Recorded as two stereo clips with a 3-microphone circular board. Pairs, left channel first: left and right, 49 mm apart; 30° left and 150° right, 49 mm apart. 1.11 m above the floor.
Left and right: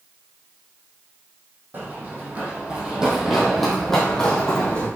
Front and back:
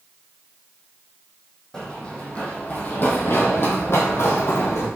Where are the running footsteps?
45° right, 2.5 m; by 4.9 s 30° left, 3 m.